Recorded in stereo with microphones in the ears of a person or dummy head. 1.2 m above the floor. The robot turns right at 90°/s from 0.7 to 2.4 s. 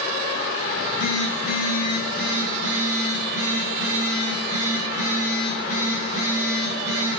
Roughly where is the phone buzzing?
Ahead left.